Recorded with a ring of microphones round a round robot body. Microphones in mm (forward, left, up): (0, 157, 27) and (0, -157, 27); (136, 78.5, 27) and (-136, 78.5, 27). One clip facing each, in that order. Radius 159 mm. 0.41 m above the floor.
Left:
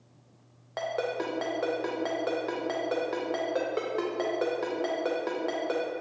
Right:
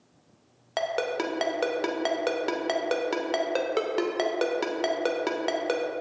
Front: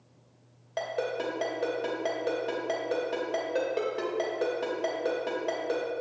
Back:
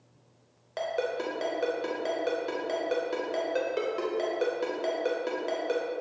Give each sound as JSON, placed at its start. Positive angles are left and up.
{"t": 0.8, "sound": "a ringtone", "azimuth_deg": -100, "distance_m": 0.8}